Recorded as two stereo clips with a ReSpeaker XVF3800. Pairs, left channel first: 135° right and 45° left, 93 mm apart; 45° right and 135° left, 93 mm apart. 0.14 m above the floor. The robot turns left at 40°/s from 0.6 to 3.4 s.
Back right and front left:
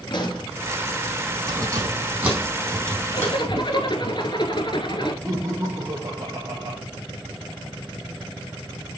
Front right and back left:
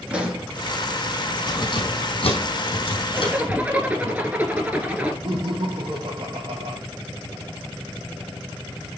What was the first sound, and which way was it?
A pop, 145° right.